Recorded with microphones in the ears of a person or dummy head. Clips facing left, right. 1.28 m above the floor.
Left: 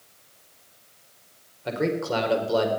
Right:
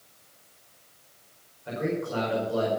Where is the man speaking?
85° left, 4.5 m.